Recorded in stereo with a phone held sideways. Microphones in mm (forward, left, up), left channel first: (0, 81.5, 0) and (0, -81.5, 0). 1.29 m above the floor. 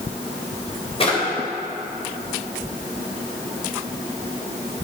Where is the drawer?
35° left (ahead or behind), 2.5 m.